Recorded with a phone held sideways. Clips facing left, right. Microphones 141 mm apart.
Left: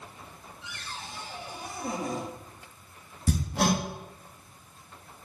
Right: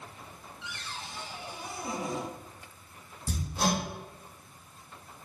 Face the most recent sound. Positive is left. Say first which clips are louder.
# left 4 dB
turn(degrees=70)  # may be behind; listen again after turning